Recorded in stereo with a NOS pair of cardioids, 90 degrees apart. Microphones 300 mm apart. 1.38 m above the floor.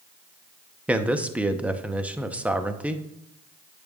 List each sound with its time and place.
0.9 s a man speaking: 5° right, 0.8 m